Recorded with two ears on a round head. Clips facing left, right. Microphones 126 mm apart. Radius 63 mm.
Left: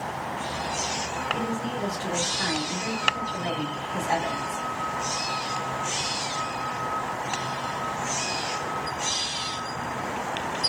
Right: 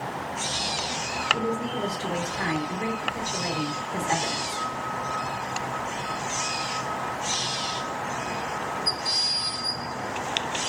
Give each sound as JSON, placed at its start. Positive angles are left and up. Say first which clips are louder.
{"t": 1.3, "sound": "a woman speaking", "louder": "right 3 dB", "side_deg": -35, "distance_m": 3.0}